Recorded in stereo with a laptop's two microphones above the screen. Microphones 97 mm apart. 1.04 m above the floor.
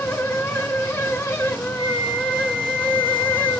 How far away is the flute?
About 6 m.